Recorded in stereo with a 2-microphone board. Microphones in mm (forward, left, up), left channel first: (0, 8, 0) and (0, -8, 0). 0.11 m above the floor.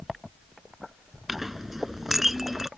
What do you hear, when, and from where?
1.3 s a clink: 15° right (ahead or behind)